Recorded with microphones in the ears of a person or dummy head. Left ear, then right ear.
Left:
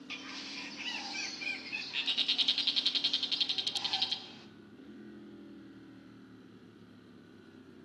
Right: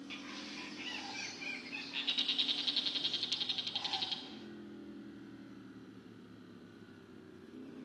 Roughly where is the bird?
Centre.